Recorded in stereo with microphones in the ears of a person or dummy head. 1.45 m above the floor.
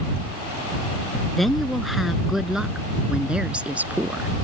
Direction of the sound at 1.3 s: Centre (ahead or behind).